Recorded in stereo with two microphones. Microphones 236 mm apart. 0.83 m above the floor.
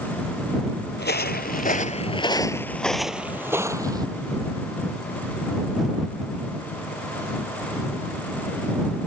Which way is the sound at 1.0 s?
45° left (ahead or behind).